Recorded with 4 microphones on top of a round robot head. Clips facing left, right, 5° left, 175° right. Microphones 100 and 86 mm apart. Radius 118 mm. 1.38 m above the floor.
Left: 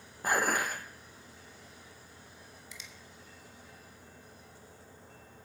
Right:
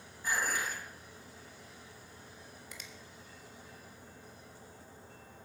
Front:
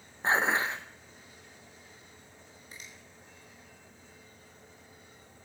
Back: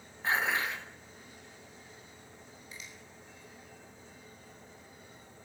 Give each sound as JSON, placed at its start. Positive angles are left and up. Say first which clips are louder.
{"t": 0.2, "sound": "dishes clattering", "louder": "left 5 dB, front 3 dB", "azimuth_deg": 60, "distance_m": 0.8}
{"t": 2.7, "sound": "a finger snap", "louder": "right 1 dB, even", "azimuth_deg": -50, "distance_m": 1.7}